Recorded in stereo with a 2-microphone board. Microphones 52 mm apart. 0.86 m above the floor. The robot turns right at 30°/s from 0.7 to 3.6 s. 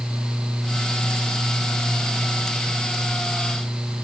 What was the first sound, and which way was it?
Only background noise.